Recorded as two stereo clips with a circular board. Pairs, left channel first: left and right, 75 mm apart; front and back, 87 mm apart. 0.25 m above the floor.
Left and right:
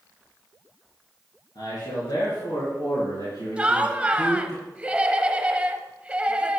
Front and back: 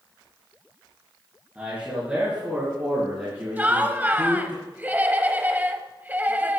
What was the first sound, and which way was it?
A man speaking, 100° left.